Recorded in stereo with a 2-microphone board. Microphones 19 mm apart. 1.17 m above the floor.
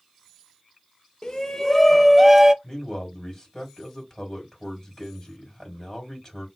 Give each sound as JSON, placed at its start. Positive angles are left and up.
{"t": 1.2, "sound": "a shout", "side_deg": 35, "distance_m": 1.1}
{"t": 2.6, "sound": "a man speaking", "side_deg": 30, "distance_m": 3.0}